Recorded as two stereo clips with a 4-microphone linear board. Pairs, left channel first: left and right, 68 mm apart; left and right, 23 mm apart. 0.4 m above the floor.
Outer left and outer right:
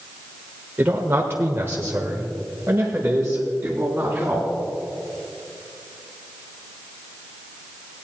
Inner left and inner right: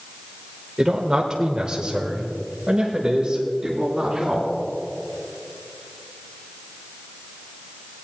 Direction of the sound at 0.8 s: 30° right (ahead or behind).